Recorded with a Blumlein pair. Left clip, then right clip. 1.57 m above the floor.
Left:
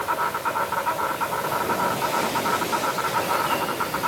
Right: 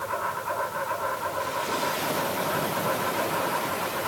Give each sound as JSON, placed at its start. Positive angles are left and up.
{"t": 0.0, "sound": "an insect", "azimuth_deg": 30, "distance_m": 7.0}